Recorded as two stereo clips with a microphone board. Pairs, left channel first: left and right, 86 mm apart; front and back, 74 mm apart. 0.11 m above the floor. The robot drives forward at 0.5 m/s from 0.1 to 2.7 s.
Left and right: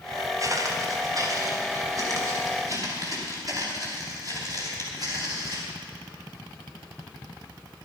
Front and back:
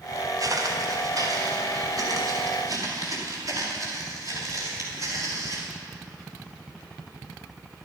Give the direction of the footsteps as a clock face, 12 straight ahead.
5 o'clock.